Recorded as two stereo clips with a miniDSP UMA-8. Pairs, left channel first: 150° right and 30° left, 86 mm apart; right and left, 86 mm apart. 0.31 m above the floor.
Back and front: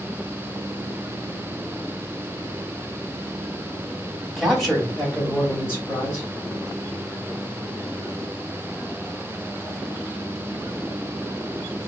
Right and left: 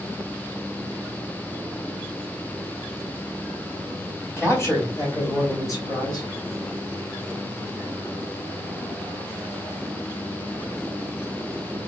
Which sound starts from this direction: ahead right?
A man speaking, at 4.4 s.